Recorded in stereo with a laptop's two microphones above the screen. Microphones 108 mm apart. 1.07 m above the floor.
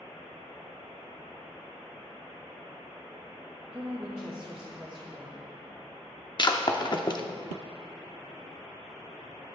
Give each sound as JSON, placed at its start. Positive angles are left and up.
{"t": 3.7, "sound": "a woman speaking", "side_deg": -20, "distance_m": 1.2}
{"t": 6.4, "sound": "breaking glass", "side_deg": 45, "distance_m": 0.7}